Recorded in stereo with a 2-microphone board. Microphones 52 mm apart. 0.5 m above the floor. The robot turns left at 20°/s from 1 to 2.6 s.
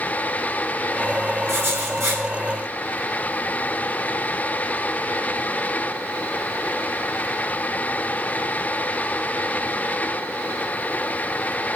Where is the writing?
55° right (ahead or behind), 3.5 m; by 2.2 s 65° right (ahead or behind), 3.5 m.